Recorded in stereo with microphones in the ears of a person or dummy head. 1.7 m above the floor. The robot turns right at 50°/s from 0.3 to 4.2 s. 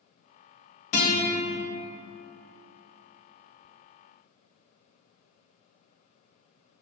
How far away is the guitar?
About 0.9 m.